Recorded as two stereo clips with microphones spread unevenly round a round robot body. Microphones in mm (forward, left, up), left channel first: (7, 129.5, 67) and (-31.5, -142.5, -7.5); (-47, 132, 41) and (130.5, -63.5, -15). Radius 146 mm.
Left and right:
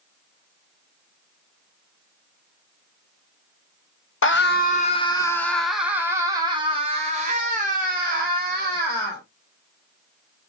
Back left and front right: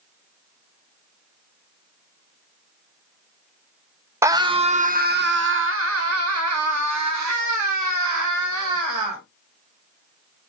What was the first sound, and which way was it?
A scream, 30° left.